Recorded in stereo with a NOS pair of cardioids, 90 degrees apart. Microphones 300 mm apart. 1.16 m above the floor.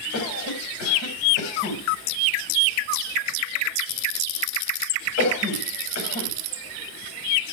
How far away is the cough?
About 4.5 m.